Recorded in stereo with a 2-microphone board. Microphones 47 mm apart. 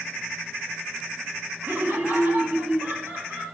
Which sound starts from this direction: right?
Laughter, at 1.6 s.